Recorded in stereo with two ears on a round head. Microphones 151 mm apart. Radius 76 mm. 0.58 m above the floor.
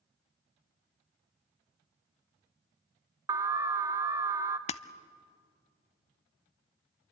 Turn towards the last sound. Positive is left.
turn(degrees=40)  # may be behind; listen again after turning